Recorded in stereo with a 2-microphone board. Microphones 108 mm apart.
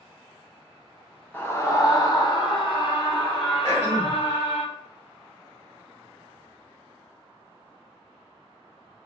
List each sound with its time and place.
1.3 s a scream: 20° left (ahead or behind), 0.8 m; by 4.6 s 70° left (ahead or behind), 2 m
3.6 s throat clearing: 40° left (ahead or behind), 2 m